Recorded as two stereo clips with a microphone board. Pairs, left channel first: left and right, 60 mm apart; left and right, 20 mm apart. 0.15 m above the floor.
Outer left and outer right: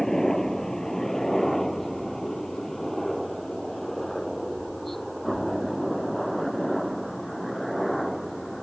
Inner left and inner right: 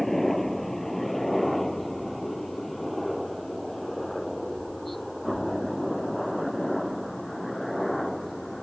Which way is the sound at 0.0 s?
5° left (ahead or behind).